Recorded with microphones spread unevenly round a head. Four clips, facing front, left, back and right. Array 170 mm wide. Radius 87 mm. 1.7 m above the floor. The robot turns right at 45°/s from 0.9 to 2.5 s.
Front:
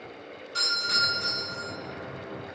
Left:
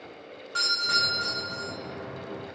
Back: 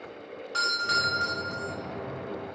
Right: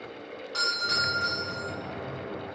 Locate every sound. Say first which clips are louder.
0.5 s a doorbell: left 1 dB, back 3 dB; 145° right, 2.5 m; by 1.7 s 110° right, 2.5 m